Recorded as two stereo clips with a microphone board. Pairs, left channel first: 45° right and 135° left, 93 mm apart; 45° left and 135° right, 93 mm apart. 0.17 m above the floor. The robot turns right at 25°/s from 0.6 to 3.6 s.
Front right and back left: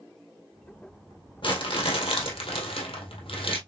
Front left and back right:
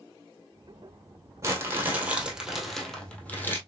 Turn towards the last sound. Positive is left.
turn(degrees=-25)